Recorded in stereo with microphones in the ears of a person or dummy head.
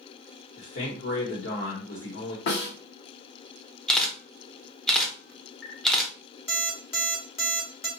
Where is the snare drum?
60° left (ahead or behind), 1.2 m.